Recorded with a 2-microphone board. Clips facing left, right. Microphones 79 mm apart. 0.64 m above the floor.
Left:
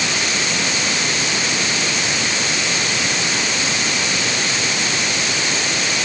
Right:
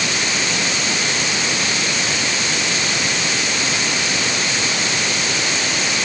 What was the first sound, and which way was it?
Only background noise.